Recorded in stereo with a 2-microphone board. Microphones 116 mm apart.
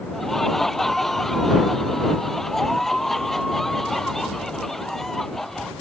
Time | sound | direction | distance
0.1 | laughter | 5° left (ahead or behind) | ?